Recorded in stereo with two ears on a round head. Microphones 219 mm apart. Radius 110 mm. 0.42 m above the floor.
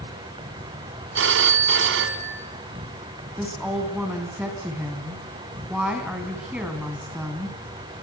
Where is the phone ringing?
55° right (ahead or behind), 2 m.